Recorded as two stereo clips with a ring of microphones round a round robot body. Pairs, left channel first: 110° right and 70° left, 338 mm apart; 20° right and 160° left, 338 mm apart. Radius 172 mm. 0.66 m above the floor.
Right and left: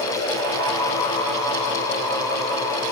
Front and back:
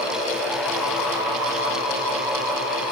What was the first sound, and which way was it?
Only background noise.